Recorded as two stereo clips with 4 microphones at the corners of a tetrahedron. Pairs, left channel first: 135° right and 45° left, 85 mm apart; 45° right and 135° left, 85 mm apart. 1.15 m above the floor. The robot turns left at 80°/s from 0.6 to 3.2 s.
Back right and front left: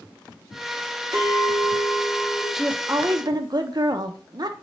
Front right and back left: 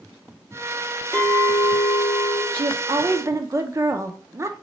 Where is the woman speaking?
135° left, 0.5 m; by 4.5 s 80° left, 0.5 m.